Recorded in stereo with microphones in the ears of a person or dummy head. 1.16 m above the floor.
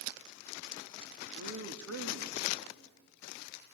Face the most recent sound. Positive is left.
turn(degrees=-30)  # may be behind; listen again after turning